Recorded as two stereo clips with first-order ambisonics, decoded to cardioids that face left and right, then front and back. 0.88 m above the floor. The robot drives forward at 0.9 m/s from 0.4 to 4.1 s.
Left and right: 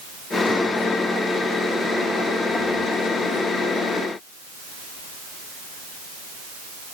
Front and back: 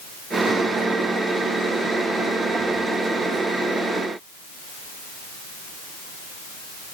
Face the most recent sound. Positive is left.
No sound to turn to.